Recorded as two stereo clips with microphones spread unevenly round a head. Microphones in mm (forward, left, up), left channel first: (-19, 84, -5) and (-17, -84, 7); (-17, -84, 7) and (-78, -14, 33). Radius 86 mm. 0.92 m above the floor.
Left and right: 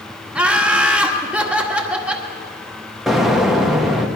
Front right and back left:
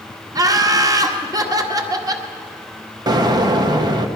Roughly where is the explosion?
Behind.